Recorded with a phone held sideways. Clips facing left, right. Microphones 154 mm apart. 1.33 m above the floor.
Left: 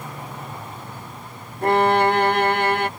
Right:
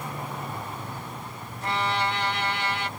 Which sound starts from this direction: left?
A violin, at 1.6 s.